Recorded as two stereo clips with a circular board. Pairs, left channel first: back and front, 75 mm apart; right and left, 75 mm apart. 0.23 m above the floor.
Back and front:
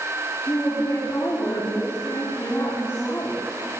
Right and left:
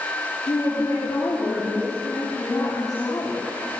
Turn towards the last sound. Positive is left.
turn(degrees=-135)